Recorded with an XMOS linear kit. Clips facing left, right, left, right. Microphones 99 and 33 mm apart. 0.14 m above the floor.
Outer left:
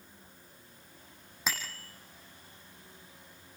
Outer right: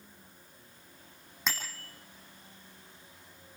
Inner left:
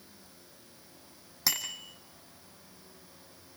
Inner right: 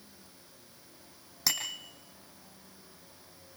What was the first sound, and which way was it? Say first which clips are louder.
A bicycle bell: even, even; 5° left (ahead or behind).